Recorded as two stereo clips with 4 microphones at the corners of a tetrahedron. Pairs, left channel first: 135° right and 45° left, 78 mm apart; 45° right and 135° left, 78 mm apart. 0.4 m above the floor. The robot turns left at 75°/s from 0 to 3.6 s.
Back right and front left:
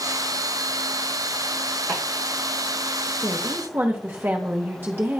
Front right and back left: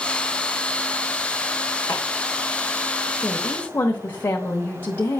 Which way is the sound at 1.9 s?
40° right.